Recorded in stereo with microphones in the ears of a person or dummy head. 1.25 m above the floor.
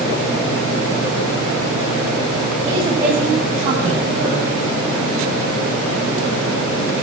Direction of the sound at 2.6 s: 20° right (ahead or behind).